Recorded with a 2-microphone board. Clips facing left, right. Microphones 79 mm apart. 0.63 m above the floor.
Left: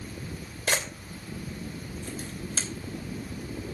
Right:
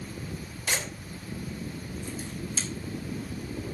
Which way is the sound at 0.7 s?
65° left (ahead or behind).